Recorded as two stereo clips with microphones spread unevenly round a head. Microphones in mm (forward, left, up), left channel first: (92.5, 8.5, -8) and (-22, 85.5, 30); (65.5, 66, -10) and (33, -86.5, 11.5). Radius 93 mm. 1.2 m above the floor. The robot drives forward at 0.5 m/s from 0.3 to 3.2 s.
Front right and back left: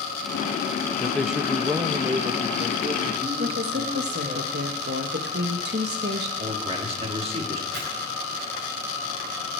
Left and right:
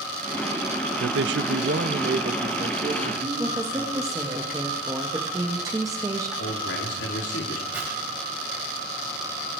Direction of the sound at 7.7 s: 175° left.